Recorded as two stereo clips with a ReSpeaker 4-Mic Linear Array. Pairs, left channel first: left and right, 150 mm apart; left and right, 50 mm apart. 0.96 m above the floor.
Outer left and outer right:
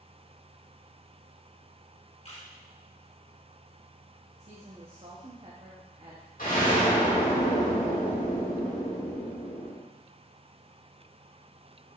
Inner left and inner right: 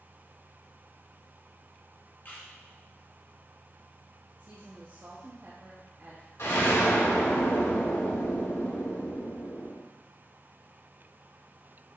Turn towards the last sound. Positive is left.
turn(degrees=65)  # may be behind; listen again after turning